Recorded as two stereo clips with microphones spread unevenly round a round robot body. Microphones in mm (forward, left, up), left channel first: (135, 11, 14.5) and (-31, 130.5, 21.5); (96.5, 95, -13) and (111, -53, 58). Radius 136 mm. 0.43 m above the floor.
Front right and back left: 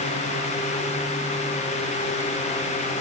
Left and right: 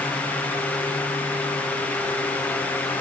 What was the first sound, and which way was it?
Only background noise.